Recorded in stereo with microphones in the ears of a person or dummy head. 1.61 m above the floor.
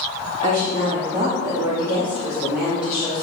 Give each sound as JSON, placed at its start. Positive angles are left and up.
{"t": 0.4, "sound": "a woman speaking", "side_deg": -40, "distance_m": 2.0}